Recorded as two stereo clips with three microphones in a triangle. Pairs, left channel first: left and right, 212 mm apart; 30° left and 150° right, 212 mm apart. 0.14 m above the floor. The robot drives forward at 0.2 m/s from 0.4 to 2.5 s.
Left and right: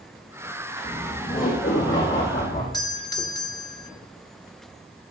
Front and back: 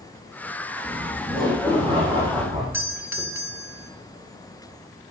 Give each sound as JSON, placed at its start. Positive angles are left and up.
{"t": 0.8, "sound": "laughter", "azimuth_deg": 140, "distance_m": 5.0}
{"t": 2.7, "sound": "a doorbell", "azimuth_deg": 145, "distance_m": 1.7}